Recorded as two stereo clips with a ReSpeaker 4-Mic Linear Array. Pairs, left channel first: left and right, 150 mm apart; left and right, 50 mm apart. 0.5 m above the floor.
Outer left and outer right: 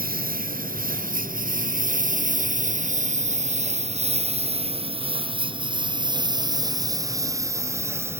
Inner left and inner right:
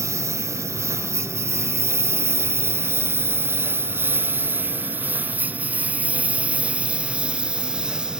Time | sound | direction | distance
0.0 | a lawn mower | 75° right (ahead or behind) | ?